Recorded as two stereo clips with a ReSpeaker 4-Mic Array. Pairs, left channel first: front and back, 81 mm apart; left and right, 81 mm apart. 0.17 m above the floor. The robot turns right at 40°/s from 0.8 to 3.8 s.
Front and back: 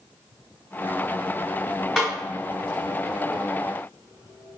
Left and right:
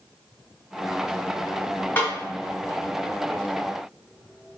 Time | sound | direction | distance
2.0 | a snare drum | 90° left | 1.4 m